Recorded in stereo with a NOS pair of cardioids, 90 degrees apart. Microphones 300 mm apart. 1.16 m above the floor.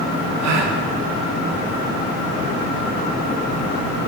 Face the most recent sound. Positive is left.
turn(degrees=-60)